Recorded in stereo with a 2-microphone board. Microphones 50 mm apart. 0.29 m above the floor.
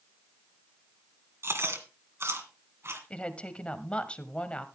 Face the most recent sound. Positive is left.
turn(degrees=25)  # may be behind; listen again after turning